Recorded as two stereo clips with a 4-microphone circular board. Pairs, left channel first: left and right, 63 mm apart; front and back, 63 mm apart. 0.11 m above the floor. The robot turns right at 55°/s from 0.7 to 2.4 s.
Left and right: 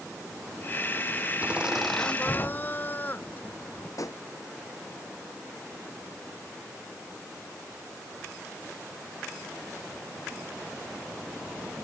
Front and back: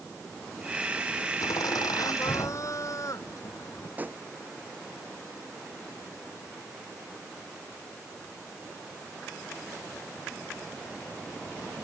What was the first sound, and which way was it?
Laughter, 25° right.